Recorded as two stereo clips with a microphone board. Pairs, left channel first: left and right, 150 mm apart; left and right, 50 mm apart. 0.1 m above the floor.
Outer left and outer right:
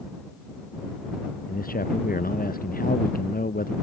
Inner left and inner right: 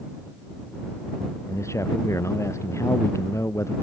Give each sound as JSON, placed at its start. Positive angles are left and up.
{"t": 1.5, "sound": "a man speaking", "side_deg": 75}